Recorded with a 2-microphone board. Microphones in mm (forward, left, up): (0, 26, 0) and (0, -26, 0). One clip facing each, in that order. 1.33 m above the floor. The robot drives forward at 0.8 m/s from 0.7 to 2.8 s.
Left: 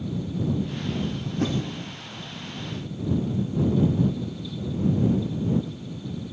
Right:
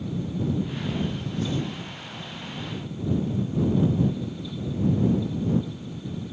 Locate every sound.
1.4 s a whoosh: 50° left (ahead or behind), 3.5 m